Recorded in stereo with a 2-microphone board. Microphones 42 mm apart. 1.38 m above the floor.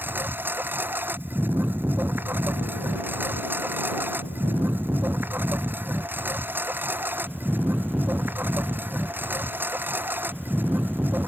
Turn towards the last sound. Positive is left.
turn(degrees=-55)  # may be behind; listen again after turning